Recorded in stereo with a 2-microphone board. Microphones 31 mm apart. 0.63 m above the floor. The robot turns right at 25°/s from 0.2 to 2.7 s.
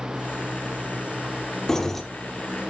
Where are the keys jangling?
15° left (ahead or behind), 0.9 m; by 2.0 s 5° left (ahead or behind), 0.9 m.